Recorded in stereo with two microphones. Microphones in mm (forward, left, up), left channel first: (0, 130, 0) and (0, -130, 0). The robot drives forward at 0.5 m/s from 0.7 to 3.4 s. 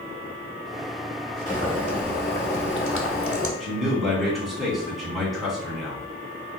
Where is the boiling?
30° left (ahead or behind), 1.4 m; by 3.5 s 60° left (ahead or behind), 0.8 m.